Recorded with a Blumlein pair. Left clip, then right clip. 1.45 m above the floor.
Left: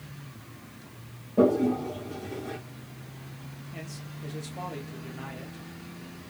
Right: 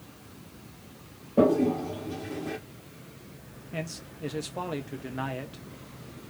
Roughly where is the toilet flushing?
Ahead.